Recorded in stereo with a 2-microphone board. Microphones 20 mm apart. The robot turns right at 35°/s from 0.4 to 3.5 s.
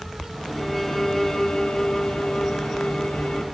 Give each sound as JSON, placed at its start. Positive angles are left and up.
{"t": 0.6, "sound": "a violin", "azimuth_deg": 10, "distance_m": 2.5}